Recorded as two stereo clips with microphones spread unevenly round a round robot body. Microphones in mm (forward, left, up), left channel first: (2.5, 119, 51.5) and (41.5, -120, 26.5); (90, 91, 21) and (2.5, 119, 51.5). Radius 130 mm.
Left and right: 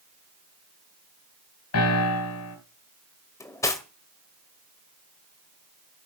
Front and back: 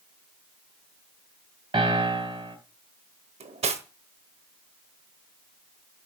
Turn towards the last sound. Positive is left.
turn(degrees=180)